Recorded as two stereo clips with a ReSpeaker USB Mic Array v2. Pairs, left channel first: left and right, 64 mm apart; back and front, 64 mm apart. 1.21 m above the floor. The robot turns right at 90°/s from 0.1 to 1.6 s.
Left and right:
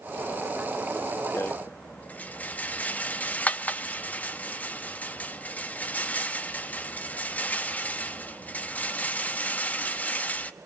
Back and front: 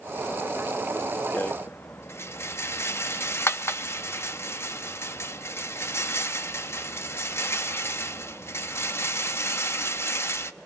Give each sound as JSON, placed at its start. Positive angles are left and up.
{"t": 1.3, "sound": "a rattle", "azimuth_deg": 125, "distance_m": 0.8}